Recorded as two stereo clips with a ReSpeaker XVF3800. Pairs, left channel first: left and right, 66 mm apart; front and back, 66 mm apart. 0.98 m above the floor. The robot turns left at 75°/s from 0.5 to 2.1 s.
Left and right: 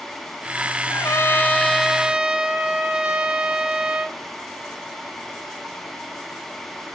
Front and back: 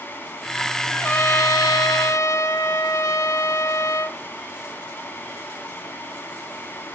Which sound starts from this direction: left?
A trumpet, at 0.9 s.